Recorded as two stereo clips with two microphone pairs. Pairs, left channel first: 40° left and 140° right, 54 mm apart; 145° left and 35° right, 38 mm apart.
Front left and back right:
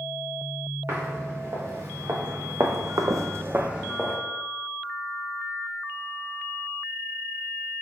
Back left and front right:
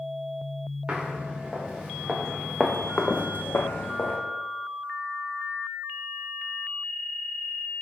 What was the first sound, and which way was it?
Footsteps, 105° right.